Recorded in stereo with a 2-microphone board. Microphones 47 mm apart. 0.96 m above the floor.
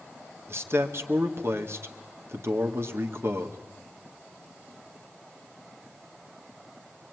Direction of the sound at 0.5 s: 60° right (ahead or behind).